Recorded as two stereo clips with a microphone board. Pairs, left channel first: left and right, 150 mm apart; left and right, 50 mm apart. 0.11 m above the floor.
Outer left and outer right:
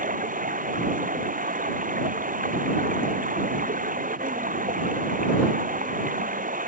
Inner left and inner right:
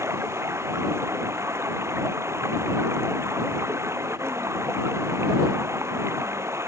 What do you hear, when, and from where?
0.0 s running water: 65° right (ahead or behind)